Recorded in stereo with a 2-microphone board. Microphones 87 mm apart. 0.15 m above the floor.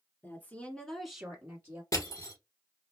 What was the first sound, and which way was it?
A woman speaking, 25° left (ahead or behind).